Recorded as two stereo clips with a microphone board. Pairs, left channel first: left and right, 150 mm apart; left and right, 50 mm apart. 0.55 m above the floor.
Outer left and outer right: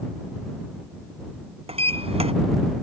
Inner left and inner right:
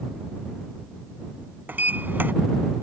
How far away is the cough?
No cough in this recording.